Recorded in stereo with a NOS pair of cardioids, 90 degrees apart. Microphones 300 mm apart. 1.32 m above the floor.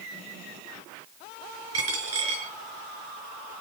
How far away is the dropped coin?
About 5.5 m.